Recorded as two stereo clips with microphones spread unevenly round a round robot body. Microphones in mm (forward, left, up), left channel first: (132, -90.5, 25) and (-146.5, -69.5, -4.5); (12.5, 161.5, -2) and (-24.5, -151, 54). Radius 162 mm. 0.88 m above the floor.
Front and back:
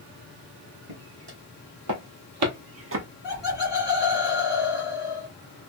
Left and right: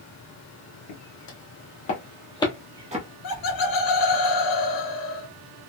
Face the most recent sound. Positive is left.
turn(degrees=95)